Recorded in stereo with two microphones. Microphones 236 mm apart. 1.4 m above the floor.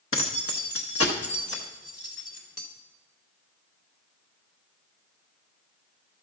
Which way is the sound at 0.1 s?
60° left (ahead or behind).